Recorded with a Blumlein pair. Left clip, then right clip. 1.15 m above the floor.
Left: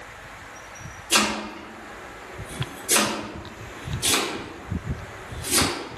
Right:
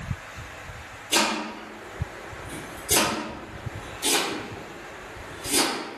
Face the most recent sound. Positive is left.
turn(degrees=35)